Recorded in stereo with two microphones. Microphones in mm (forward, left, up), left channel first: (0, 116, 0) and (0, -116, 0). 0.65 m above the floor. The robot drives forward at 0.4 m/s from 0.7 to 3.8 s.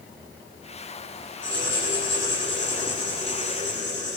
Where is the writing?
50° left (ahead or behind), 9 m; by 4.2 s 45° left (ahead or behind), 9.5 m.